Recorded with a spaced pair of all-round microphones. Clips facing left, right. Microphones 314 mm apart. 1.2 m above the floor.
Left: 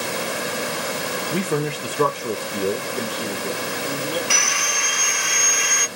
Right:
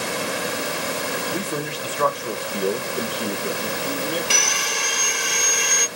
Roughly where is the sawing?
Right.